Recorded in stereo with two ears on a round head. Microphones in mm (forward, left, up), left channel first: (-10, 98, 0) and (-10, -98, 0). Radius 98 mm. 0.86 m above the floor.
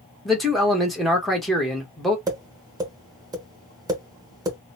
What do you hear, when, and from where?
0.2 s a man speaking: centre (ahead or behind), 0.9 m
2.3 s tapping: 15° right (ahead or behind), 1.0 m